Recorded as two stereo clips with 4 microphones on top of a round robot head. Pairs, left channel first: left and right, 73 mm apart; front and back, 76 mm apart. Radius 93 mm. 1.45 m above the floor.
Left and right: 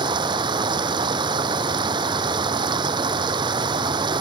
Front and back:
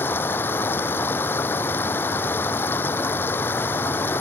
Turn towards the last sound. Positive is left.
turn(degrees=-70)